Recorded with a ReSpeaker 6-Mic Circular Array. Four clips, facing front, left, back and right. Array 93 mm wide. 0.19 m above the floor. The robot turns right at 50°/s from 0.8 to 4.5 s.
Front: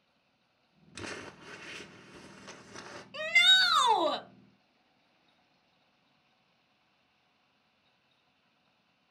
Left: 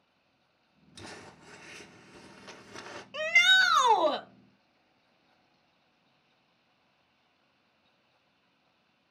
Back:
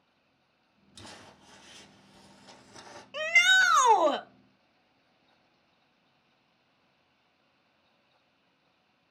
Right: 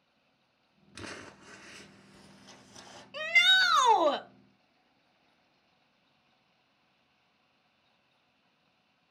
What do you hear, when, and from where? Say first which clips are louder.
0.9 s crumpling: right 2 dB, front 7 dB; 35° right, 1.7 m; by 3.0 s 70° left, 1.7 m
3.1 s a shout: left 2 dB, back 5 dB; 150° left, 1.0 m; by 4.2 s 160° right, 1.0 m